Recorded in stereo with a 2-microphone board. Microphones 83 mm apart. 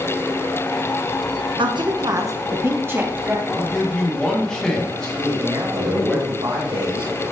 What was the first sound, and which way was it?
A woman speaking, 75° right (ahead or behind).